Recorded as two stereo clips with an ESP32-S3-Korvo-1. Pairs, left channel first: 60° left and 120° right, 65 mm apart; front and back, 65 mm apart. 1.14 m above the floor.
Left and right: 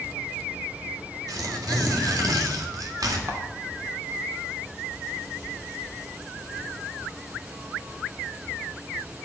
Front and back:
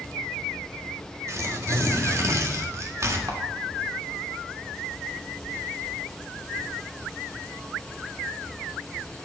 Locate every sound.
1.3 s tearing paper: 140° right, 1.7 m
3.3 s a camera shutter: 155° right, 2.5 m